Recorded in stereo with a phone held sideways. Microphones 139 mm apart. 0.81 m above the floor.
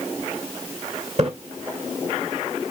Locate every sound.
1.2 s a splash: 50° right (ahead or behind), 2 m